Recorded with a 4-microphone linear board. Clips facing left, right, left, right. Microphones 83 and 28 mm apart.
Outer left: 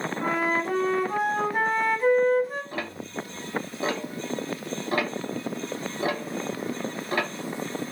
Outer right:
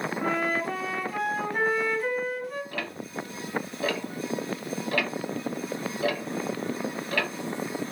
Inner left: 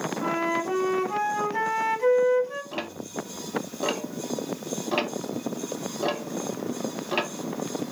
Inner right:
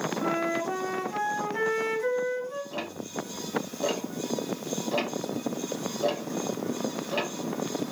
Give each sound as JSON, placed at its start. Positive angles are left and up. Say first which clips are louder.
{"t": 0.2, "sound": "a flute", "louder": "outer left 2 dB, inner left 3 dB", "side_deg": 30, "distance_m": 1.1}
{"t": 2.7, "sound": "ticking", "louder": "outer left 1 dB, inner left 1 dB", "side_deg": 30, "distance_m": 0.8}